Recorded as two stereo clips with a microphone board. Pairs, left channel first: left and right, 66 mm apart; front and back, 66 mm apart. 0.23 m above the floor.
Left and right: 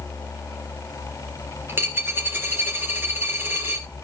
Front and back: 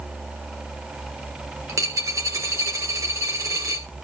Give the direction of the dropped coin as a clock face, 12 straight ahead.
5 o'clock.